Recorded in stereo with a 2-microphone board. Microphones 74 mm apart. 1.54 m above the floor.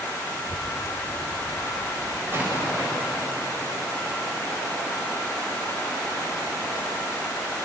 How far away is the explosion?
About 9 m.